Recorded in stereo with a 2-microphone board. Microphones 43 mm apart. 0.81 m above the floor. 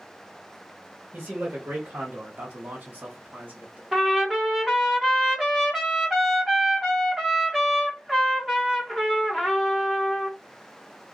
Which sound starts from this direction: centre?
A trumpet, at 3.9 s.